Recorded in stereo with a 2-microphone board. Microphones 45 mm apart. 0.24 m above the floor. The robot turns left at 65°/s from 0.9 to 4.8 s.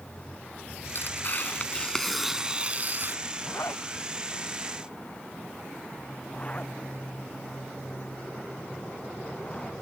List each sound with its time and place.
0.9 s tearing paper: 80° left; by 3.2 s 65° right
3.5 s a zipper: 60° left (ahead or behind); by 9.7 s 30° left (ahead or behind)